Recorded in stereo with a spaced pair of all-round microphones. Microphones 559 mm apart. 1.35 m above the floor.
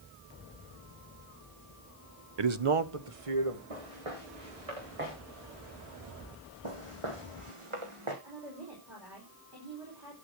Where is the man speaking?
50° right (ahead or behind), 0.7 m; by 3.6 s 75° right (ahead or behind), 2.5 m.